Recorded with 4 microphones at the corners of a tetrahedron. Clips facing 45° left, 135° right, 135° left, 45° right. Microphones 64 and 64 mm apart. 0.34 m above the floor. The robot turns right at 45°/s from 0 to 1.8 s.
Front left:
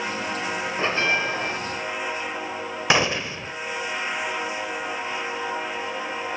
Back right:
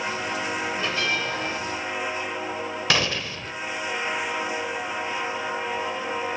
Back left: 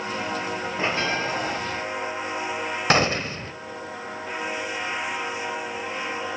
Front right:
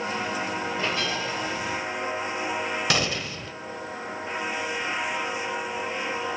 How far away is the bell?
About 1.7 m.